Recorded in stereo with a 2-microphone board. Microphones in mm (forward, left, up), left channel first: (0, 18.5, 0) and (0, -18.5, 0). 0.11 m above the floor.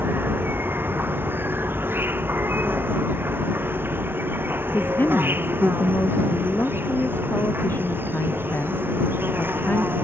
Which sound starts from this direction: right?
An insect, at 0.0 s.